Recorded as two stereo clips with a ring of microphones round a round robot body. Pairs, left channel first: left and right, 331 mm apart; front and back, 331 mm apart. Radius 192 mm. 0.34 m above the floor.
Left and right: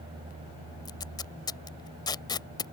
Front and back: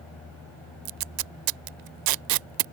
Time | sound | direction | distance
0.8 | tape being pulled | 170° left | ?